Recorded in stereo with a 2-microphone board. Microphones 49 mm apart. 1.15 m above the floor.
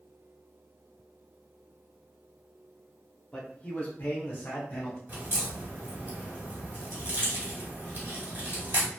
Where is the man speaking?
15° left (ahead or behind), 0.6 m; by 5.0 s 40° left (ahead or behind), 0.9 m.